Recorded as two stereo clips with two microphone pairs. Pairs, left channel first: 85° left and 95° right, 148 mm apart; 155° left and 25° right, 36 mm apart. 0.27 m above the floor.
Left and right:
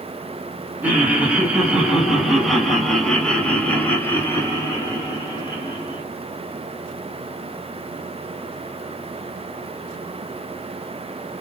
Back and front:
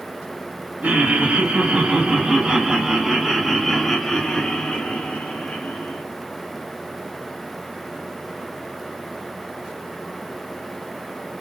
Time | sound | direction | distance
0.8 | laughter | 20° right | 2 m